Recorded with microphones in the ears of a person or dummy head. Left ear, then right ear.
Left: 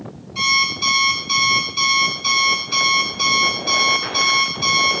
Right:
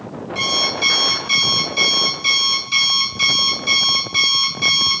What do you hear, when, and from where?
0.3 s an alarm clock: 20° right (ahead or behind), 4 m